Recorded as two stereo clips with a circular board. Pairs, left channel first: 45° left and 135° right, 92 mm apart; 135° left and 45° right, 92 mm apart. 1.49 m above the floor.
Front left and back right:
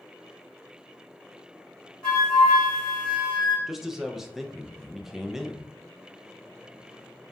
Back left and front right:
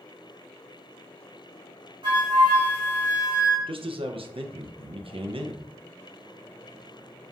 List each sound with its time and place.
2.0 s a flute: 35° right, 1.6 m
3.7 s a man speaking: 50° right, 0.5 m